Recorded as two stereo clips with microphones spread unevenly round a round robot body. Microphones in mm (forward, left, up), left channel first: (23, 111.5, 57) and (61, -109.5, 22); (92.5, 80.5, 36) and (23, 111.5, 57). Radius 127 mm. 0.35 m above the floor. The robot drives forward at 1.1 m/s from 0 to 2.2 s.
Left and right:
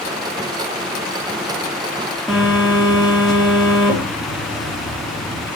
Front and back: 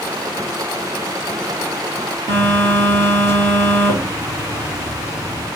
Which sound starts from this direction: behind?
A phone buzzing, at 2.3 s.